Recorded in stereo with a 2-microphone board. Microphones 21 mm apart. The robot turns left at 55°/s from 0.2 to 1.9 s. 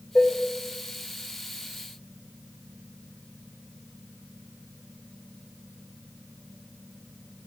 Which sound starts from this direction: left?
Dishes clattering, at 0.1 s.